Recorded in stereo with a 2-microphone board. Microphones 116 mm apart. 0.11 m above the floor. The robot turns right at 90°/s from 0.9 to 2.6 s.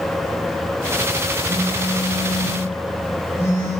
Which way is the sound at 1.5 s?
80° right.